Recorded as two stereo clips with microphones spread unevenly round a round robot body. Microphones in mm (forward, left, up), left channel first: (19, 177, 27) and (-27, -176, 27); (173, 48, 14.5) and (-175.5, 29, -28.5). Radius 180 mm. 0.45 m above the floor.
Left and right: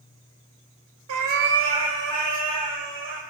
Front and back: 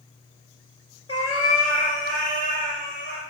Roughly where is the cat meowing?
Ahead right.